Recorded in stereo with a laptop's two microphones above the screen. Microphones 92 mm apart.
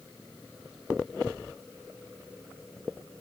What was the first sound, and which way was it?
Only background noise.